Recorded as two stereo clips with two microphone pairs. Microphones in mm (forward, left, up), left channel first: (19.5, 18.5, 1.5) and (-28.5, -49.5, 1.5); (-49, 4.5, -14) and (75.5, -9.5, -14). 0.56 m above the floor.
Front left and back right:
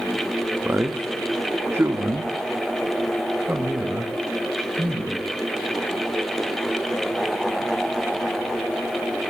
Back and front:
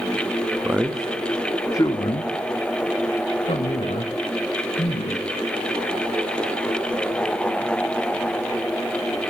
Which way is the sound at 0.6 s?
70° right.